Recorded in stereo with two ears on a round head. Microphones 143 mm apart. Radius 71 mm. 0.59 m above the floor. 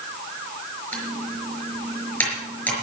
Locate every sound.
0.9 s typing on a keyboard: 10° left (ahead or behind), 5.5 m